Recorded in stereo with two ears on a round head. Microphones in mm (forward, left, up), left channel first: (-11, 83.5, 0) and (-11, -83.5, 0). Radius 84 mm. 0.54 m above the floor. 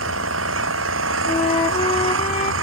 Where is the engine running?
85° right.